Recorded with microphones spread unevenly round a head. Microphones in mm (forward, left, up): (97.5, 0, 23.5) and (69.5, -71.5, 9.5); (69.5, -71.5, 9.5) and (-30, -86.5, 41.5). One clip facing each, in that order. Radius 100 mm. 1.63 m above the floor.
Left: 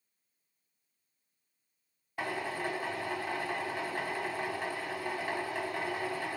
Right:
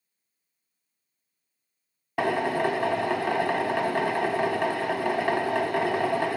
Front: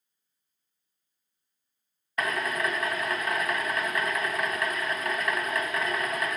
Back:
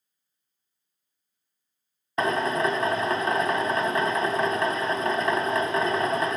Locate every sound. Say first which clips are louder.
2.2 s a drill: right 11 dB, back 5 dB; 140° right, 1.1 m